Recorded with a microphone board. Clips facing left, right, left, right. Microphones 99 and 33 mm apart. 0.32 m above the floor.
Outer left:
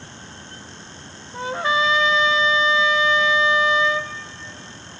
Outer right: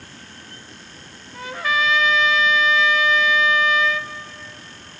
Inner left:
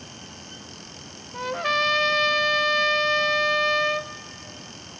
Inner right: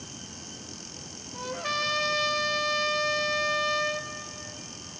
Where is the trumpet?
30° left (ahead or behind), 0.6 m.